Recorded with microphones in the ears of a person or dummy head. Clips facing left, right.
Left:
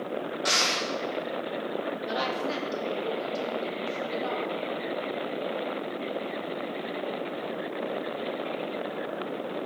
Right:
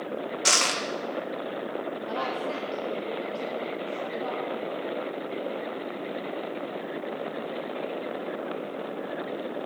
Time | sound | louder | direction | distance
0.5 | crushing | right 2 dB | 60° right (ahead or behind) | 0.7 m
2.1 | a woman speaking | even | 25° left (ahead or behind) | 0.6 m